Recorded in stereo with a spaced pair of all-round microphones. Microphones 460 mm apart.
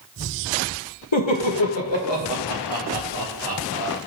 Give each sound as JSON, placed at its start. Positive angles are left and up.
{"t": 1.1, "sound": "laughter", "side_deg": 75, "distance_m": 1.3}